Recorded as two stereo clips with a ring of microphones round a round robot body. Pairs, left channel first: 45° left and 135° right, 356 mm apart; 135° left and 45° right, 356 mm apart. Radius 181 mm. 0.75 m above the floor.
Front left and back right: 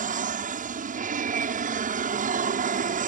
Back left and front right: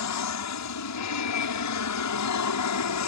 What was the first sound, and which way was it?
An aircraft, 160° left.